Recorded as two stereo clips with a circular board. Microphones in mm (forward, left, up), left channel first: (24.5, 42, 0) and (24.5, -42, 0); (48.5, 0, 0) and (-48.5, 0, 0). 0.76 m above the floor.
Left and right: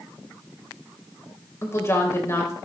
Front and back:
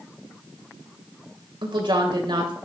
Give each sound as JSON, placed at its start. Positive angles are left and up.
{"t": 1.6, "sound": "a woman speaking", "azimuth_deg": 145, "distance_m": 3.0}